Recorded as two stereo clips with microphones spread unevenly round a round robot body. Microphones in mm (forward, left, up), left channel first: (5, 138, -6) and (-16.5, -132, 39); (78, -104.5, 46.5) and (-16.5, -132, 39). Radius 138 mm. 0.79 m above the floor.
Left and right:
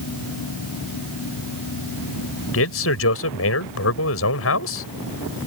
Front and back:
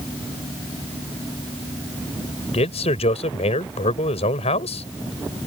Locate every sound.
2.5 s a man speaking: 45° left